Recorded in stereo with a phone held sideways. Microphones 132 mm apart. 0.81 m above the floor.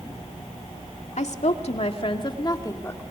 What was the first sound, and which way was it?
A woman speaking, 65° left (ahead or behind).